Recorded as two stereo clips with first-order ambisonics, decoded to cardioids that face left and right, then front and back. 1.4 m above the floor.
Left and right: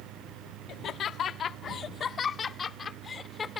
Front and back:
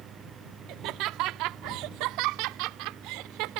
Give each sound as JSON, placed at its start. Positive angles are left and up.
{"t": 0.7, "sound": "laughter", "azimuth_deg": 145}